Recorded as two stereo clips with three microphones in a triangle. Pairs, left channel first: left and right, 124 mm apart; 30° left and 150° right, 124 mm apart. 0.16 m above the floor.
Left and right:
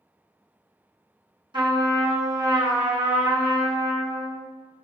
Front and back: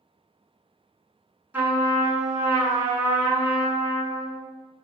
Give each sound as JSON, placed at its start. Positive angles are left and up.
{"t": 1.5, "sound": "a trumpet", "azimuth_deg": -85, "distance_m": 1.1}